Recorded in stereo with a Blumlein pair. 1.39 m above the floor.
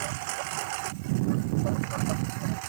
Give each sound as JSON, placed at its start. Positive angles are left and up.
{"t": 0.0, "sound": "a lawn mower", "azimuth_deg": -45}